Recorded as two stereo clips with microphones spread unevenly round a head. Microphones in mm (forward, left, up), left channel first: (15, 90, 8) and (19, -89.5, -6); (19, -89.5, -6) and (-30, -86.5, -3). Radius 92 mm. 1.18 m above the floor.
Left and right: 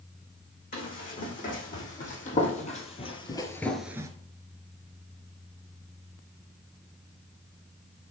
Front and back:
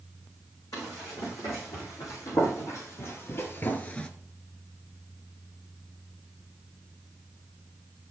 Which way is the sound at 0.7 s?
50° left.